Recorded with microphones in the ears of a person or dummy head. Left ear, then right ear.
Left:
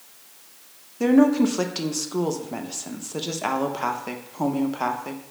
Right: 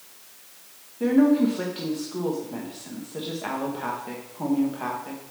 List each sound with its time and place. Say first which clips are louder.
1.0 s a woman speaking: left 2 dB; 85° left, 0.6 m